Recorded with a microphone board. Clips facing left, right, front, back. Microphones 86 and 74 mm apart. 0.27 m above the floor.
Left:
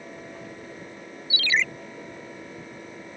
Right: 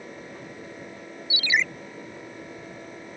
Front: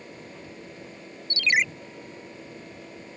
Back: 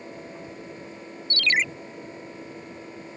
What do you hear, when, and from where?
1.3 s a ringtone: 50° right